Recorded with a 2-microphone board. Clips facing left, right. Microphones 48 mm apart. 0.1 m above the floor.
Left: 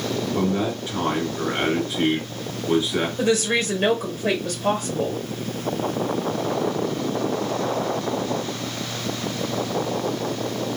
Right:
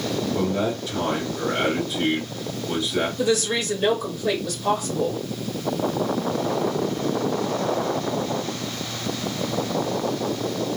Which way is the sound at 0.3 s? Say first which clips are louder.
Left 2 dB; 30° left (ahead or behind).